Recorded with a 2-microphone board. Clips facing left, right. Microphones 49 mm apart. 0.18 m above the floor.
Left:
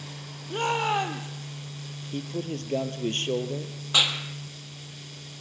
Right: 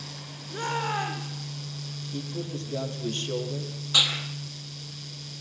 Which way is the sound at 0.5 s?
75° left (ahead or behind).